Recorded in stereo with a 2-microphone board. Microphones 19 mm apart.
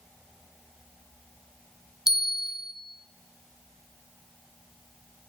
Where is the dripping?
No dripping in this recording.